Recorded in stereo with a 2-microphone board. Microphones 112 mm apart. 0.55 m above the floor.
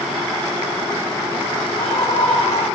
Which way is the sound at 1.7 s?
60° left (ahead or behind).